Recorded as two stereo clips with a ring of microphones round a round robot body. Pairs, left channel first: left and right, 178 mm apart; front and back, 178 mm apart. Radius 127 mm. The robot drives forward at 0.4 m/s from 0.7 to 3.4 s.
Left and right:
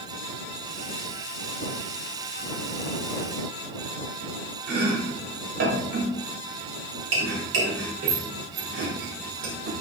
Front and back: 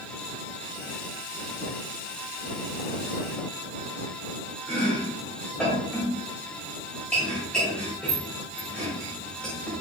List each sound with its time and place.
4.7 s chopping: 85° right, 2.5 m